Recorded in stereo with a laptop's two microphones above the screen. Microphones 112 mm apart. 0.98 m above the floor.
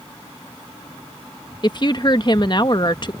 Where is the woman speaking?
40° left (ahead or behind).